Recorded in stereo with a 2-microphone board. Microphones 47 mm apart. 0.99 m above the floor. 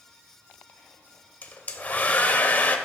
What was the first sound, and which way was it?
A hair dryer, 35° left (ahead or behind).